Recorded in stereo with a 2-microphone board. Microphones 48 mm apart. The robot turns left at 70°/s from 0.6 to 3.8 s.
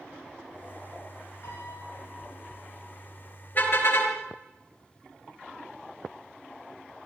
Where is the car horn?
40° left (ahead or behind), 5.5 m; by 4.1 s 60° left (ahead or behind), 5.5 m.